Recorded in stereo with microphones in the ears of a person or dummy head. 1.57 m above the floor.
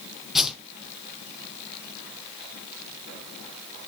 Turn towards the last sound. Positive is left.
turn(degrees=-5)  # may be behind; listen again after turning